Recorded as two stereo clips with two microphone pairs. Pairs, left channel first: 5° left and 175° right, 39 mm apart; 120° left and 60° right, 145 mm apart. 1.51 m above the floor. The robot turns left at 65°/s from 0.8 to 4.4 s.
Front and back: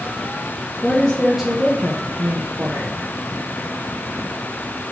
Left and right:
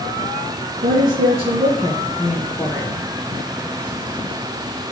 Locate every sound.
0.8 s a woman speaking: 60° right, 0.7 m; by 3.1 s 155° left, 0.7 m